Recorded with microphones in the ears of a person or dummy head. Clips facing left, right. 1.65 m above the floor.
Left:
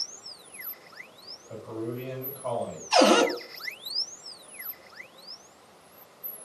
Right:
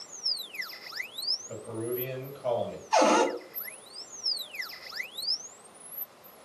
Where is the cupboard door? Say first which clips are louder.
Left 3 dB; 40° left (ahead or behind), 0.7 m.